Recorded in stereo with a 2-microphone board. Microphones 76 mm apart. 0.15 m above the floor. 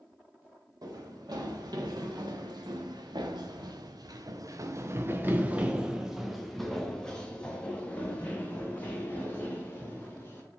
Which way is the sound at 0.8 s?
70° right (ahead or behind).